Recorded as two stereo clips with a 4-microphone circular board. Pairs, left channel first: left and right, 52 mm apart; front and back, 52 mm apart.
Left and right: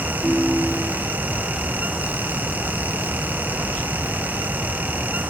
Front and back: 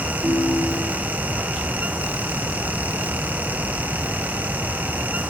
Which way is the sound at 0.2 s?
Straight behind.